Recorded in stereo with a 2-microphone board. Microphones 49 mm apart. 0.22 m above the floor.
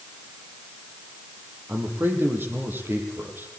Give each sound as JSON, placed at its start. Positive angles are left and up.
{"t": 1.7, "sound": "a man speaking", "side_deg": -40, "distance_m": 8.0}